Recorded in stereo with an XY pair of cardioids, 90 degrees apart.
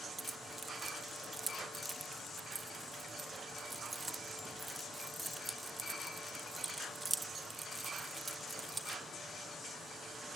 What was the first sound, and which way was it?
Keys jangling, 25° right.